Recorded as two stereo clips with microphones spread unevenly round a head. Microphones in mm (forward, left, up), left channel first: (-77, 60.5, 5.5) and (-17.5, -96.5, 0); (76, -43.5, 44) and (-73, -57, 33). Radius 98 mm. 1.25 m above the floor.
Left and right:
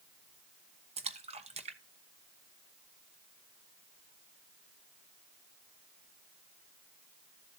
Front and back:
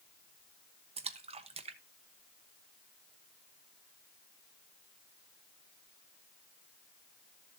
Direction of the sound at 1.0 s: 125° right.